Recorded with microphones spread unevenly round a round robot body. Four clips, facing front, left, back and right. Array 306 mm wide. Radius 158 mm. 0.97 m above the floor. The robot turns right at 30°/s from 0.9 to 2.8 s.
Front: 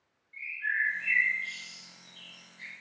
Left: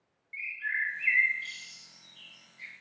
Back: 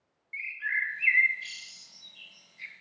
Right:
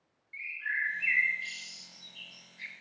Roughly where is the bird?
Behind.